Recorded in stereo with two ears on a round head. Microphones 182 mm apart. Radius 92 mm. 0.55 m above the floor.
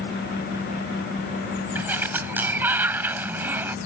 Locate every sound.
1.8 s a sliding door: 10° right (ahead or behind)